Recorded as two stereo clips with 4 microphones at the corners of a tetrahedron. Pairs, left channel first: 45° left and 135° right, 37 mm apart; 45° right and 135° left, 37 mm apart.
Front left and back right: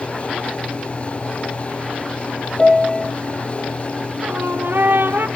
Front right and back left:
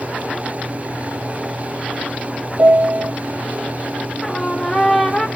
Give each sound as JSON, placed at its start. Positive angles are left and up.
{"t": 2.6, "sound": "a piano", "azimuth_deg": 125, "distance_m": 0.6}
{"t": 4.2, "sound": "a trumpet", "azimuth_deg": -135, "distance_m": 1.5}